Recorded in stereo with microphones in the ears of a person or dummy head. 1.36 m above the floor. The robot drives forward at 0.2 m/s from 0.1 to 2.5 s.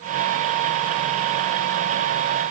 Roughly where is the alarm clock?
No alarm clock in this recording.